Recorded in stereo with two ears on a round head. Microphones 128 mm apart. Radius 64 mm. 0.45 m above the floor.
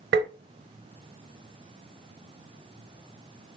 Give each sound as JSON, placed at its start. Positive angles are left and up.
{"t": 0.1, "sound": "tapping", "side_deg": -85, "distance_m": 0.6}